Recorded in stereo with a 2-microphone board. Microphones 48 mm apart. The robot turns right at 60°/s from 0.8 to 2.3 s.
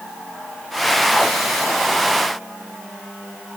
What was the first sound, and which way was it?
Only background noise.